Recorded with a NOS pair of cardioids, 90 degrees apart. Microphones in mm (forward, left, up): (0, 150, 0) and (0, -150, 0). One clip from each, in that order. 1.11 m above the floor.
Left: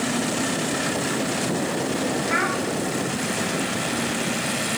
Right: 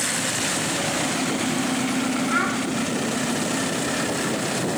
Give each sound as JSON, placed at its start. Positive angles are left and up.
{"t": 2.3, "sound": "a child speaking", "azimuth_deg": 45, "distance_m": 5.0}